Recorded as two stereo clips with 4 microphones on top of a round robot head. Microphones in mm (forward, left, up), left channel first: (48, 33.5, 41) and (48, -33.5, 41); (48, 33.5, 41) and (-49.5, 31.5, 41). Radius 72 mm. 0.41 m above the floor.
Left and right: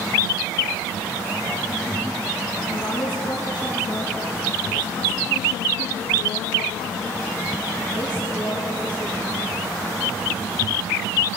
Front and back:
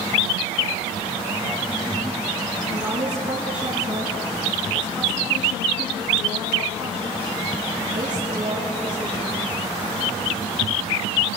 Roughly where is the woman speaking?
Left.